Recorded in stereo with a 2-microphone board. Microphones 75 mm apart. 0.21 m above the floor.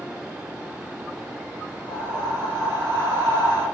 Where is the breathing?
75° left (ahead or behind), 3.5 m.